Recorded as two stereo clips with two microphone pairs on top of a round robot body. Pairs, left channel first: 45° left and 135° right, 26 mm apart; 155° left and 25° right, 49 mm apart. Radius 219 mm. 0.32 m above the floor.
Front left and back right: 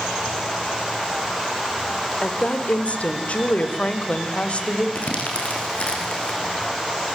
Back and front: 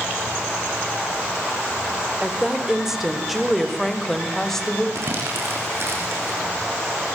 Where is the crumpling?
10° left, 6 m.